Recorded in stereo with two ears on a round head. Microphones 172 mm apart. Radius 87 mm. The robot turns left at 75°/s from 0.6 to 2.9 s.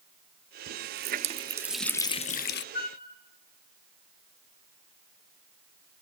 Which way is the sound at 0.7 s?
100° right.